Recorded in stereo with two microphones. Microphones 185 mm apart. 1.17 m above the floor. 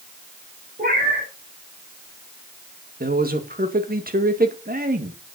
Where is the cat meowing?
50° right (ahead or behind), 4 m.